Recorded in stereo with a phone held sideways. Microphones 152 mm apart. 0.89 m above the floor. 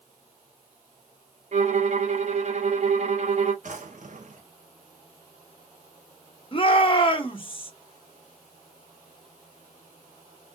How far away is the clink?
I don't hear a clink.